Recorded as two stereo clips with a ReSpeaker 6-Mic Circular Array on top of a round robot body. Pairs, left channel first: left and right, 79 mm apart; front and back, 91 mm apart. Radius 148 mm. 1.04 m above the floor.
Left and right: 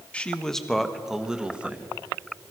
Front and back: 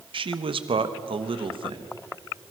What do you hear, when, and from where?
0.1 s a man speaking: 165° left, 1.4 m; by 1.9 s 160° right, 1.7 m